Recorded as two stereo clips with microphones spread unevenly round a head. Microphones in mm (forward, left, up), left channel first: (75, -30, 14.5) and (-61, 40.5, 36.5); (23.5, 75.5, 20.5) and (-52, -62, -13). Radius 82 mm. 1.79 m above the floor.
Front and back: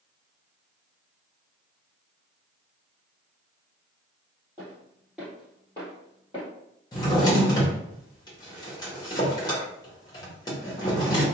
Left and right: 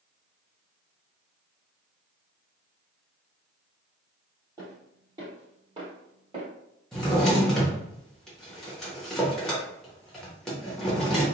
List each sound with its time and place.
4.6 s footsteps: 165° left, 1.9 m; by 6.5 s 70° right, 2 m
6.9 s a drawer: 20° left, 0.9 m